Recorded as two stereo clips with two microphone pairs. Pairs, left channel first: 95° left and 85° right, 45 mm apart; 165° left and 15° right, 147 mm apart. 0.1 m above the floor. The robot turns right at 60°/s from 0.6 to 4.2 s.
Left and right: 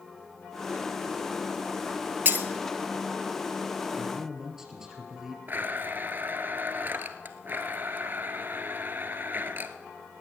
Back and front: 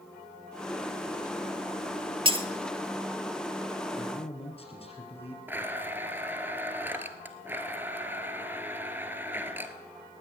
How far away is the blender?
About 0.9 m.